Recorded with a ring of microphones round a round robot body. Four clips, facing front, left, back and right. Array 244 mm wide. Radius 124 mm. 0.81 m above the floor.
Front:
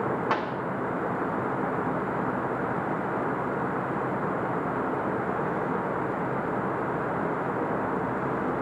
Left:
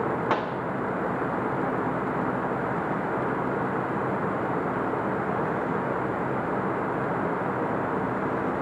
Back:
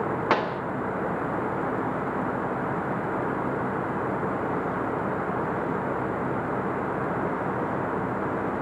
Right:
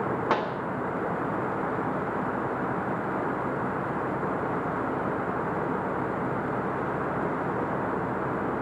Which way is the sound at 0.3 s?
175° left.